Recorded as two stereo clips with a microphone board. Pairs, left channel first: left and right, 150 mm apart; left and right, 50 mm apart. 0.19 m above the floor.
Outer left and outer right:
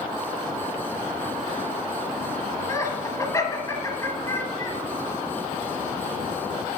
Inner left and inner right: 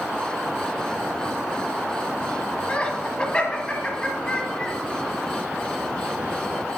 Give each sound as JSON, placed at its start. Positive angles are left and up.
{"t": 2.7, "sound": "laughter", "side_deg": 20, "distance_m": 1.1}